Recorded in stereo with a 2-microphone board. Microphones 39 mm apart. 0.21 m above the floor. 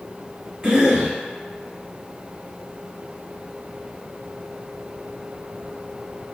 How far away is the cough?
About 1.4 m.